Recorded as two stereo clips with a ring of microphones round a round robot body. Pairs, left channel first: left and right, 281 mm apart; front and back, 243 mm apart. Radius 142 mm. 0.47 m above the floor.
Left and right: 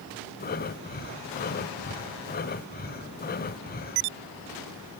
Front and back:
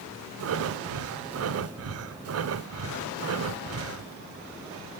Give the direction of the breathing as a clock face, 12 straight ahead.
7 o'clock.